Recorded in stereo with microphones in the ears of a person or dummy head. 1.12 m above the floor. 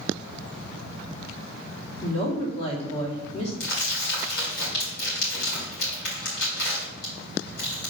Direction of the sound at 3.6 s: 70° left (ahead or behind).